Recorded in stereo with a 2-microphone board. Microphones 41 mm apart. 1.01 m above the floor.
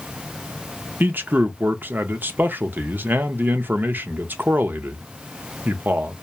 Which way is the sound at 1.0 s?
55° right (ahead or behind).